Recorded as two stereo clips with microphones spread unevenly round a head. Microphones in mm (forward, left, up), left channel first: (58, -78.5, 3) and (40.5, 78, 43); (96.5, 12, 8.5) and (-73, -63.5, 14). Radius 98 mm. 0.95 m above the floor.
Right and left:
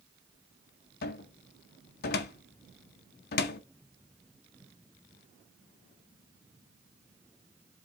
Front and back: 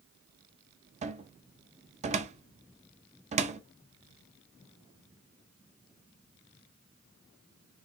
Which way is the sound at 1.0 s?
100° right.